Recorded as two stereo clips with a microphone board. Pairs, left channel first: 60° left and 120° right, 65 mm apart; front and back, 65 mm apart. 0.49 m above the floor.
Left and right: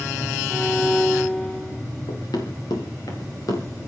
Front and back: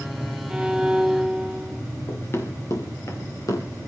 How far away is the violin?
About 0.7 m.